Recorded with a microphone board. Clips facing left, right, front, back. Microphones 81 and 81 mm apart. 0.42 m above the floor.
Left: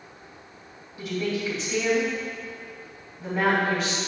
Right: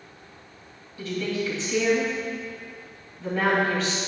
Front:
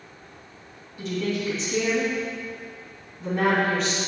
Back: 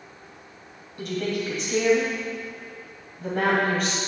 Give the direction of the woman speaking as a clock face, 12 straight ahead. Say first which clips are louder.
Even, even; 7 o'clock.